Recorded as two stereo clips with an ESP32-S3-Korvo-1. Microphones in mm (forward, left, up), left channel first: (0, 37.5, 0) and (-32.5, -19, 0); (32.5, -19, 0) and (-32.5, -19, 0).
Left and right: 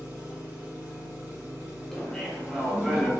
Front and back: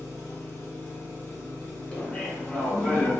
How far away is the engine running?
About 1.5 m.